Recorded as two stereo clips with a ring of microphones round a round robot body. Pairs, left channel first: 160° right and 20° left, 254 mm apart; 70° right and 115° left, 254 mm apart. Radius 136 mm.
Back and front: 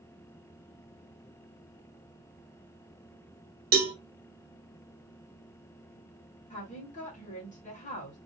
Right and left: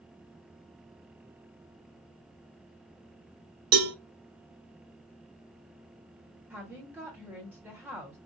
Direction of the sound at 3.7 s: 80° left.